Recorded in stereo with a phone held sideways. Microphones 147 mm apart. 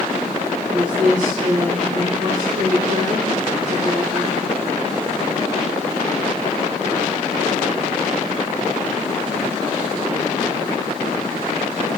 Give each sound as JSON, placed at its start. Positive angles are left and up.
{"t": 0.7, "sound": "a woman speaking", "side_deg": -60, "distance_m": 0.8}